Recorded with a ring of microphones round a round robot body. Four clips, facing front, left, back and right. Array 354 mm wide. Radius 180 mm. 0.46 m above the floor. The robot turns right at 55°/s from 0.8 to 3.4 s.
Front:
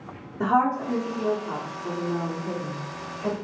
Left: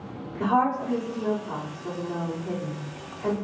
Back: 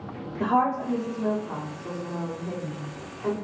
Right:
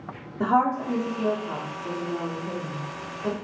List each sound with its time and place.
0.4 s a woman speaking: 35° right, 1.4 m; by 3.3 s 105° left, 1.4 m